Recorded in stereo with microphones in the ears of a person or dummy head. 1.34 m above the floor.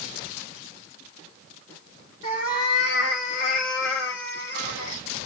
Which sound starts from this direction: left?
A cat meowing, at 2.2 s.